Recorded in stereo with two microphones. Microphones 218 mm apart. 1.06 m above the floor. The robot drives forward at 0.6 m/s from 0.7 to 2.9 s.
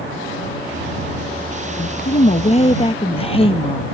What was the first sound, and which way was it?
A woman speaking, 50° left (ahead or behind).